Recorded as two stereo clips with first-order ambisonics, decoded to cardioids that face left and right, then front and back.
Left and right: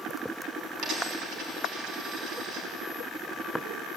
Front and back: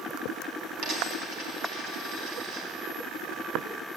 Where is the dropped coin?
150° right, 3 m.